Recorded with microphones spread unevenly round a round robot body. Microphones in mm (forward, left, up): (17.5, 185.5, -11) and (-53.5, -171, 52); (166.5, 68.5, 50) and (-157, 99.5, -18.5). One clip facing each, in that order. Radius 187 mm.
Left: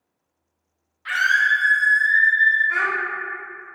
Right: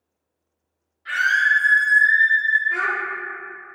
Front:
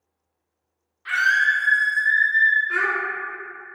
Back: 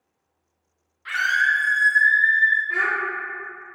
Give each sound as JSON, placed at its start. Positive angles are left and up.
{"t": 1.1, "sound": "a scream", "azimuth_deg": 100, "distance_m": 0.6}
{"t": 2.7, "sound": "a child speaking", "azimuth_deg": 55, "distance_m": 1.2}